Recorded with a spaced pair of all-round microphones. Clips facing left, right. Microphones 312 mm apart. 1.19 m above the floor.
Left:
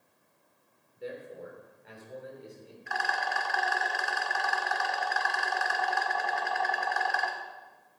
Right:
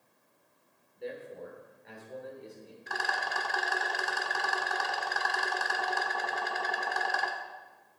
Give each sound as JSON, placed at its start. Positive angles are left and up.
{"t": 0.9, "sound": "a man speaking", "side_deg": 5, "distance_m": 3.5}
{"t": 2.9, "sound": "a rattle", "side_deg": -45, "distance_m": 1.4}